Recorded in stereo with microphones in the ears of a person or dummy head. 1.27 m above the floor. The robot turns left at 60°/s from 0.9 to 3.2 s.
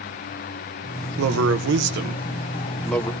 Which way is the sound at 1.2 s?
80° right.